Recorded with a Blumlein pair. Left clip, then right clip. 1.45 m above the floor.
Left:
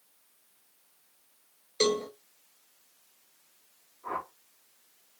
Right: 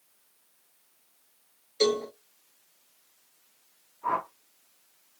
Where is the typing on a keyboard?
I don't hear typing on a keyboard.